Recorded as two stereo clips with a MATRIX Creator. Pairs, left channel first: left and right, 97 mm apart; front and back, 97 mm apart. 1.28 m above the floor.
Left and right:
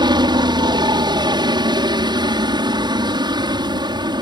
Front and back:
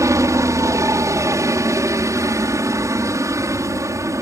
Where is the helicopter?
125° right.